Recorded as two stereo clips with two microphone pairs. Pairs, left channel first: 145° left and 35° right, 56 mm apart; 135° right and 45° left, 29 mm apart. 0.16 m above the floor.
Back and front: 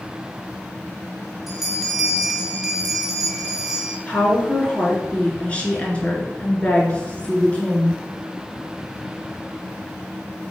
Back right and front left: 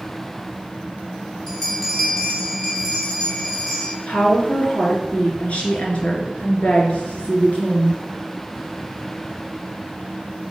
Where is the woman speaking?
150° right, 1.8 m.